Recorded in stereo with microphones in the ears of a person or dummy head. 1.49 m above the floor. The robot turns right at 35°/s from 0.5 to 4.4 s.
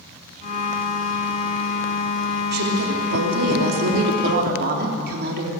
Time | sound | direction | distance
2.5 | a woman speaking | 125° right | 3 m